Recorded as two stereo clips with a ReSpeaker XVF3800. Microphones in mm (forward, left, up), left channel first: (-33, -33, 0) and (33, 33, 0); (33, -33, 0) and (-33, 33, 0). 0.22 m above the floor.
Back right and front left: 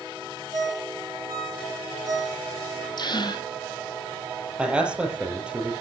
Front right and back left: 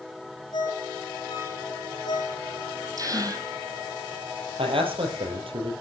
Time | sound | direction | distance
0.5 | a ringtone | 5° right | 8 m
3.0 | a gasp | 175° right | 2.5 m
4.6 | a man speaking | 125° left | 5.5 m